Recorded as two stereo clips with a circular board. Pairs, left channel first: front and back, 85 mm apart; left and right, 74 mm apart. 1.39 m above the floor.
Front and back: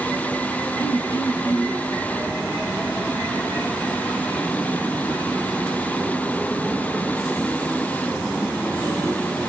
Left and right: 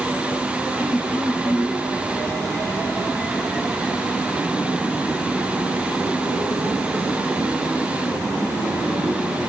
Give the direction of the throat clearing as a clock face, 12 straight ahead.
1 o'clock.